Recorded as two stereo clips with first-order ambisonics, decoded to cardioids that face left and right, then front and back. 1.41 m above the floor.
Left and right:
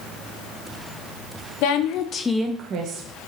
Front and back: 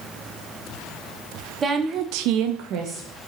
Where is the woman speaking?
110° left, 0.9 m; by 3.0 s 130° right, 1.1 m.